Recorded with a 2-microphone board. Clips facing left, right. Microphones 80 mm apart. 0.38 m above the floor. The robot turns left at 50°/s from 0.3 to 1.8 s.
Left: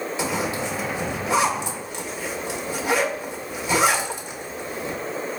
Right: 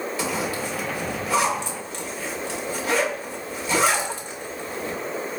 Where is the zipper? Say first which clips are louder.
Left 2 dB; 20° left (ahead or behind), 0.7 m; by 5.0 s 15° left (ahead or behind), 0.7 m.